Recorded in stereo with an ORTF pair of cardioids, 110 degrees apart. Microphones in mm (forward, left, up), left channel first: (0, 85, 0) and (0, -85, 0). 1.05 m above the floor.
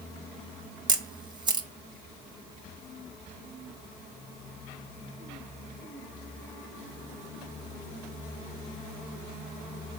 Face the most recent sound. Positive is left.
turn(degrees=-30)